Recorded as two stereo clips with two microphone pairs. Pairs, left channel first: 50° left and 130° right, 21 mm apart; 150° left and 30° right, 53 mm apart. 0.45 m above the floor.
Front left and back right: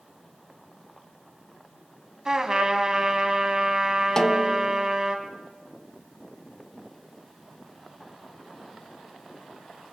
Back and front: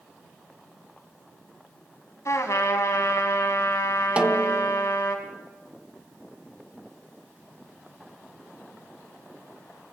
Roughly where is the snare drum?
Ahead.